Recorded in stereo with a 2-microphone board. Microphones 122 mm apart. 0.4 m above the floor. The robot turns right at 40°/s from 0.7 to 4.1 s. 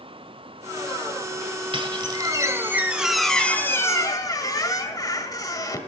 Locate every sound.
1.7 s a squeak: 60° right, 1.6 m; by 5.8 s 35° left, 1.6 m